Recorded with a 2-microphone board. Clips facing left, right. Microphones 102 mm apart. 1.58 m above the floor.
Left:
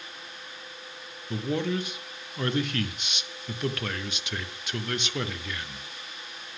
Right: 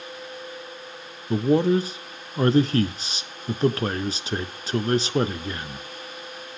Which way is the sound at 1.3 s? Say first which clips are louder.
Right 9 dB; 35° right (ahead or behind).